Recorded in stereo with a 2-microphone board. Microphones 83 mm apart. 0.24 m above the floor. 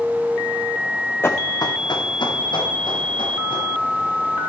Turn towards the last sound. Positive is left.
turn(degrees=80)